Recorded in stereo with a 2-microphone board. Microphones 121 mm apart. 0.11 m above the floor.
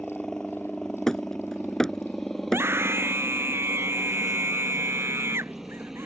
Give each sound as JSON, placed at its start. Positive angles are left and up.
{"t": 0.0, "sound": "a helicopter", "side_deg": 5}
{"t": 1.1, "sound": "hammering", "side_deg": 5}
{"t": 2.4, "sound": "a scream", "side_deg": -20}